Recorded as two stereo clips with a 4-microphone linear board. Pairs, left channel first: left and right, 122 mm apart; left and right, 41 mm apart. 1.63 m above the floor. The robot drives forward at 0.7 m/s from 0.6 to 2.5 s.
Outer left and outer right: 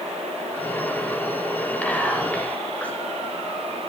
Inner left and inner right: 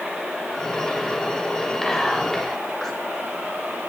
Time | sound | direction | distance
1.8 | whispering | 10° left (ahead or behind) | 7.5 m